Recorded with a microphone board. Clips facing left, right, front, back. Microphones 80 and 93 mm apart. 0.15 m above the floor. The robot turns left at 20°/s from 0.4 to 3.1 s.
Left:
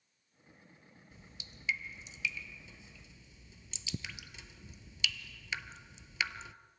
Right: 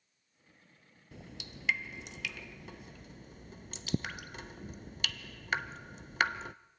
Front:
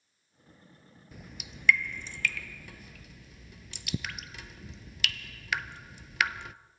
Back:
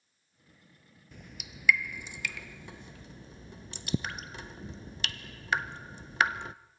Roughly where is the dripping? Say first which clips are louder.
Right 11 dB, front 1 dB; right.